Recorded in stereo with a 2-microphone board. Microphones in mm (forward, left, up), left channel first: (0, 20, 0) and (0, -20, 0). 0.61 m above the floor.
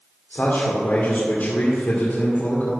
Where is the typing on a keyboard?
I don't hear typing on a keyboard.